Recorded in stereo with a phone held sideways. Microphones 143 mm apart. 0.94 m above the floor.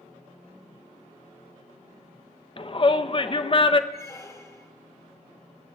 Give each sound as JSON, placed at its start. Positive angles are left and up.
{"t": 2.6, "sound": "a shout", "side_deg": 40, "distance_m": 0.5}
{"t": 3.9, "sound": "a squeak", "side_deg": 20, "distance_m": 1.4}